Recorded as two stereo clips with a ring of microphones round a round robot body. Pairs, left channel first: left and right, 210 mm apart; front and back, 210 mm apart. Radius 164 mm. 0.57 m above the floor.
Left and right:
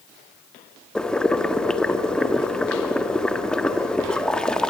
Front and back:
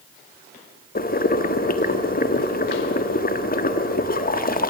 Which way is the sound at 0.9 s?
5° left.